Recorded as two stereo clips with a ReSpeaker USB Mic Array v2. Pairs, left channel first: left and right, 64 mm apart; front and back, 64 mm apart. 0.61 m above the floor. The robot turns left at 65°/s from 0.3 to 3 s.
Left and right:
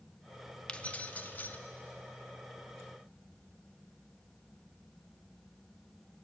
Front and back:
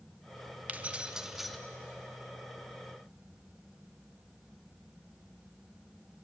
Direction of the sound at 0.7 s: 145° left.